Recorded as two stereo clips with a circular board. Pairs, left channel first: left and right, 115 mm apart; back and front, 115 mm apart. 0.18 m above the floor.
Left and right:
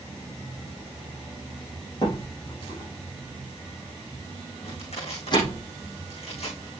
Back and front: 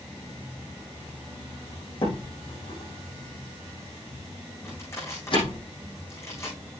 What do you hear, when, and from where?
2.0 s a door slam: 140° left, 6 m
4.6 s crushing: 115° left, 6.5 m